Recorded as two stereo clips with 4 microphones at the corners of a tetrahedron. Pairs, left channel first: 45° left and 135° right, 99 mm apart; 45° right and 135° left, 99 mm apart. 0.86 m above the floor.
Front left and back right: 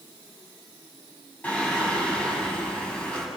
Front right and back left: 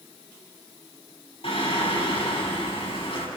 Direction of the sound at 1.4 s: 30° right.